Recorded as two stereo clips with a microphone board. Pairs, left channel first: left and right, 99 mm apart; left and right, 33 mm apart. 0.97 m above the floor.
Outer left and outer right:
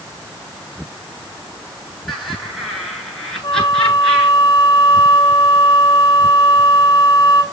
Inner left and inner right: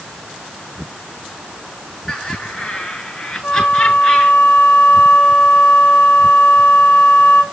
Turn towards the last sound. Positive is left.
turn(degrees=55)  # may be behind; listen again after turning